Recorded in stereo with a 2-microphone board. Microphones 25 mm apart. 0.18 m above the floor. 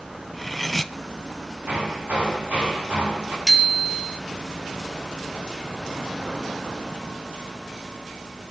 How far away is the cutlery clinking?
About 0.7 m.